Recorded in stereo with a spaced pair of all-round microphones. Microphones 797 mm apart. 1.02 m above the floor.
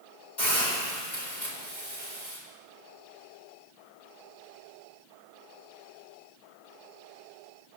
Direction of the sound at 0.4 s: 65° left (ahead or behind).